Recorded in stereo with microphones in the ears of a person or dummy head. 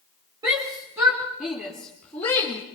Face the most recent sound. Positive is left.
turn(degrees=20)  # may be behind; listen again after turning